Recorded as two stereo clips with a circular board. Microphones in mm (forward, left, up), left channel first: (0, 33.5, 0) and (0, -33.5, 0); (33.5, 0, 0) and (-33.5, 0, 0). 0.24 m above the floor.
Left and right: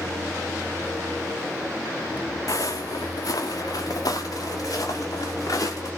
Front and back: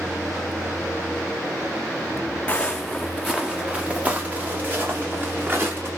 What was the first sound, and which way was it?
Footsteps, 70° left.